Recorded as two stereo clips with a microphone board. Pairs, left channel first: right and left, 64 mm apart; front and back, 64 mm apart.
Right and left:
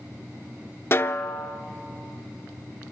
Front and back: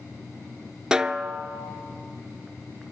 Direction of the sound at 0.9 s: 110° right.